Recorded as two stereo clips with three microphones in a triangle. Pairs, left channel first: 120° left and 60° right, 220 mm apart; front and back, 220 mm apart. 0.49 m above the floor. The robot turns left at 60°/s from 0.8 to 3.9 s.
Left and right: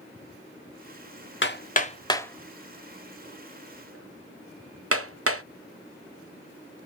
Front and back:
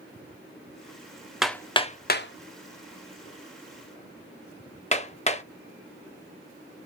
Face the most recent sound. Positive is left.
turn(degrees=-55)